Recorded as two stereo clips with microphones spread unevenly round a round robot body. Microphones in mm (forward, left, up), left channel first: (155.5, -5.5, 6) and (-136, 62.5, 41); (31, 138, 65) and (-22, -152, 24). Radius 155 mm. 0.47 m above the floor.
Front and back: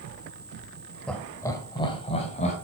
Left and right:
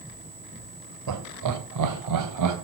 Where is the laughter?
100° right, 1.7 m; by 2.5 s 80° right, 2.5 m.